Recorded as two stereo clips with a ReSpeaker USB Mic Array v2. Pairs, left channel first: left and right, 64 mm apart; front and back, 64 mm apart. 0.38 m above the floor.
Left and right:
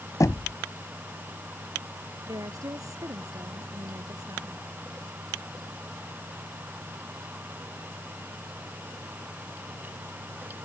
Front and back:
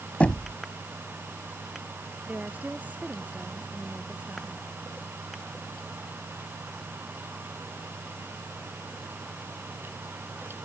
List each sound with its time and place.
0.2 s knocking: 65° left
2.3 s a woman speaking: 115° right